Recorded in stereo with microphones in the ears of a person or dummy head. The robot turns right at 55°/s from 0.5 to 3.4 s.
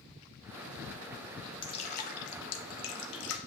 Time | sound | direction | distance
1.6 | dripping | 25° left (ahead or behind) | 1.1 m